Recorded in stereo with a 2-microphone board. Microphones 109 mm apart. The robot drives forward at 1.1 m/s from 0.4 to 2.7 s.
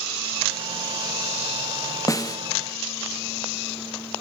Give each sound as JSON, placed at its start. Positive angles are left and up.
{"t": 2.1, "sound": "a snare drum", "side_deg": 30, "distance_m": 1.1}